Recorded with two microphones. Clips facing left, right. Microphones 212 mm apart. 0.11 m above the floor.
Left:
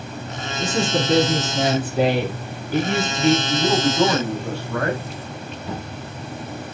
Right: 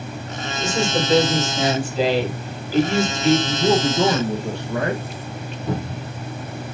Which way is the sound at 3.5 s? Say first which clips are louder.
Right 1 dB; 20° right (ahead or behind).